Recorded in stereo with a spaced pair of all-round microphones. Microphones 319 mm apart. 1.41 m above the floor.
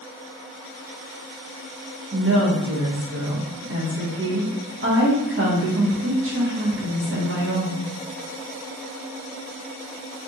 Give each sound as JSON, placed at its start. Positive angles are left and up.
{"t": 2.1, "sound": "a woman speaking", "side_deg": -40, "distance_m": 1.3}